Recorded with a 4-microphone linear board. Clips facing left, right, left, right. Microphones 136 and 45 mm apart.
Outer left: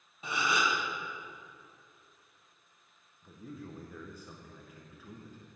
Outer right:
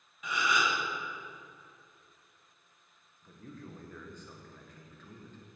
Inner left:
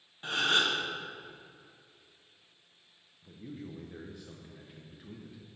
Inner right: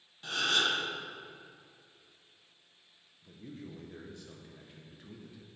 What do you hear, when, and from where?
0.2 s a gasp: 30° left (ahead or behind), 1.5 m
3.2 s a man speaking: 10° left (ahead or behind), 0.9 m